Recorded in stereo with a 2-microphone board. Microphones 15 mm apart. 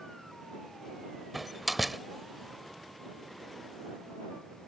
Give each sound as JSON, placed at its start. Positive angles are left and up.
{"t": 1.3, "sound": "a door slam", "side_deg": -5}